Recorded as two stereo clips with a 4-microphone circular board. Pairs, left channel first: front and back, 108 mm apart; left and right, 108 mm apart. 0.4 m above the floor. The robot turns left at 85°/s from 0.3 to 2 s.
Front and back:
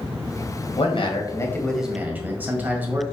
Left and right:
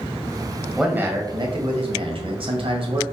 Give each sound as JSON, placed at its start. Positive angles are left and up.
{"t": 0.8, "sound": "a man speaking", "azimuth_deg": 0, "distance_m": 2.0}